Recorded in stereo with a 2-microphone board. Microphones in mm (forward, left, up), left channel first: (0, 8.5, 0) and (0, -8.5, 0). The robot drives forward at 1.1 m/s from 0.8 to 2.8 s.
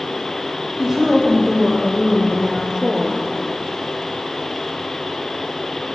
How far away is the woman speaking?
About 4.5 m.